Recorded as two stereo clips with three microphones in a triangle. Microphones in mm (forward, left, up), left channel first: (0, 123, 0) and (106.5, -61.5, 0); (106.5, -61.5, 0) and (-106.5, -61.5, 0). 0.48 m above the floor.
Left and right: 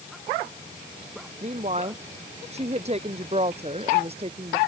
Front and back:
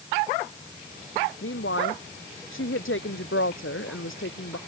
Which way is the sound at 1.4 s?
5° right.